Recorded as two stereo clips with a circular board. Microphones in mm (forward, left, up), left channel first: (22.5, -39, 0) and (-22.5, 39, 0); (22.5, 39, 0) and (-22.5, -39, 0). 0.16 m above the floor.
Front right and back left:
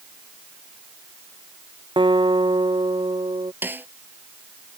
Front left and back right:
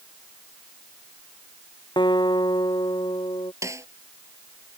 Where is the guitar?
90° left.